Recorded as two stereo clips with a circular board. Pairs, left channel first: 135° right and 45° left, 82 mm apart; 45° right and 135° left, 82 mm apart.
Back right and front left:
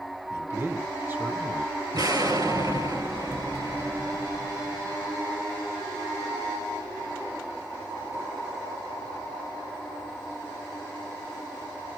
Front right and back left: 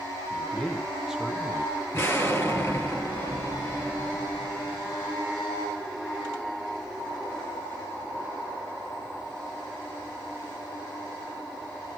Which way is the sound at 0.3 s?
15° left.